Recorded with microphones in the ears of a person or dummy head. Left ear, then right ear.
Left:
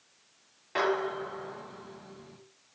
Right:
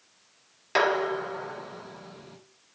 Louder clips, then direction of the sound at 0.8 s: Right 5 dB; 65° right (ahead or behind).